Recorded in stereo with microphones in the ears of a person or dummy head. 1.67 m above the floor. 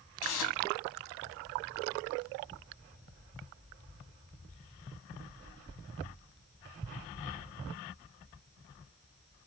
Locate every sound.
0.2 s tearing paper: 75° left (ahead or behind), 4 m